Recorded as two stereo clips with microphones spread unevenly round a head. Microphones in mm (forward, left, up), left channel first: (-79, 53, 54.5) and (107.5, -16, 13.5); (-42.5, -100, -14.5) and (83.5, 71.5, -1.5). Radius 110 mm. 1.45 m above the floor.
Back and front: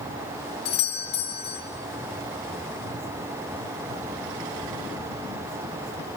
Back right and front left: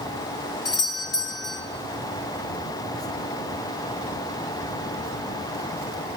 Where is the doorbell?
155° right, 4.5 m.